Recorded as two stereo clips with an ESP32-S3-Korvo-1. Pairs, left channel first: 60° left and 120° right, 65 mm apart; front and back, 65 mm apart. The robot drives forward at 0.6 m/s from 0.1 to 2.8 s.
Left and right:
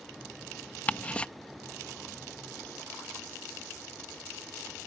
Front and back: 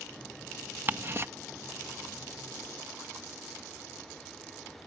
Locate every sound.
0.9 s ticking: 125° left; by 1.3 s 130° left